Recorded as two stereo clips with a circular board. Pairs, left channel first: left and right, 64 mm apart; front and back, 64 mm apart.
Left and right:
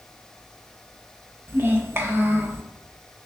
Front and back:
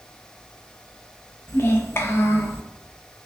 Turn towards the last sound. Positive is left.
turn(degrees=-45)